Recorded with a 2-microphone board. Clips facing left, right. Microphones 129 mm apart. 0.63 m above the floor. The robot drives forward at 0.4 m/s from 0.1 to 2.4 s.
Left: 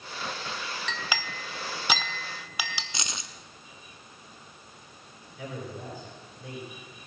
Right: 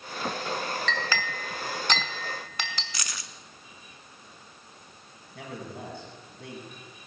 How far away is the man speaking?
About 5.5 m.